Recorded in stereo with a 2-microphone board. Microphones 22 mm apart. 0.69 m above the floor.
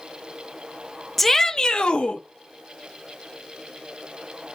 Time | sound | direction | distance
1.2 | a shout | centre (ahead or behind) | 0.5 m